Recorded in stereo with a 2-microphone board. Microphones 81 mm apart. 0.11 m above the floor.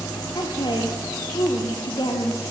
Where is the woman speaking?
60° left (ahead or behind), 2.5 m.